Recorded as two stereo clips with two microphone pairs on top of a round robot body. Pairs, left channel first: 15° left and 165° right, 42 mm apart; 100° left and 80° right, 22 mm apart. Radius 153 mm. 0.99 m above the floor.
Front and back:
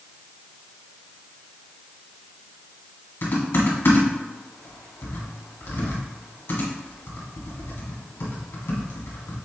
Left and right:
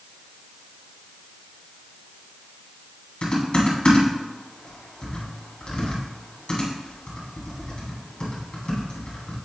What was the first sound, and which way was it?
Typing on a keyboard, 55° left.